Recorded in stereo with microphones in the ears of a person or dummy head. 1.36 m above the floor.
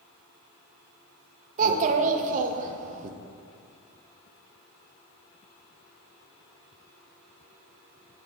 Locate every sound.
1.6 s a child speaking: 40° right (ahead or behind), 0.6 m